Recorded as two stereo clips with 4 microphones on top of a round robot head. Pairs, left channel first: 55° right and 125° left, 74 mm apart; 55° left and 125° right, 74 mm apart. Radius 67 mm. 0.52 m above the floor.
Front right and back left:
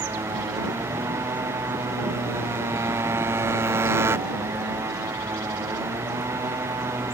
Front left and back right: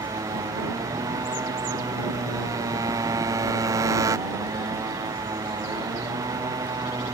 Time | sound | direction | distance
0.0 | a motorcycle | 175° right | ?